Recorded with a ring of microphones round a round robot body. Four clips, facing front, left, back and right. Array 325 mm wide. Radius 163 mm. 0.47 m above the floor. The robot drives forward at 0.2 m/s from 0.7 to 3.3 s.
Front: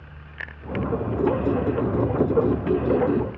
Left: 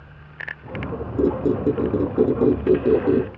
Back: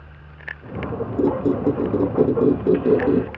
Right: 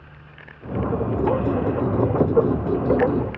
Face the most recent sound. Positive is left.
turn(degrees=150)